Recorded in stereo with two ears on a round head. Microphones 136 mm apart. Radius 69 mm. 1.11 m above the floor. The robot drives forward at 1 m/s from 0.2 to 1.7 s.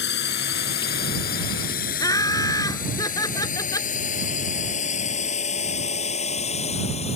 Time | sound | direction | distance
0.0 | a drone | 85° left | ?
2.0 | laughter | 25° left (ahead or behind) | ?